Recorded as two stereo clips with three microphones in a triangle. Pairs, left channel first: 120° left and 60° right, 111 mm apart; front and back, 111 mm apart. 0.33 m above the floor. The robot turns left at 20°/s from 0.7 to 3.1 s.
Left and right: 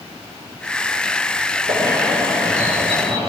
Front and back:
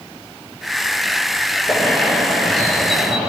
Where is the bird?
60° right, 6 m; by 3.3 s 90° right, 6 m.